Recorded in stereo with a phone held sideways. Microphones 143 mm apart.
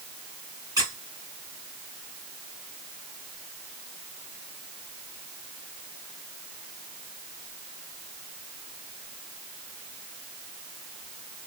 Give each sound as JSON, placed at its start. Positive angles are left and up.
{"t": 0.8, "sound": "a squeak", "side_deg": -25, "distance_m": 1.1}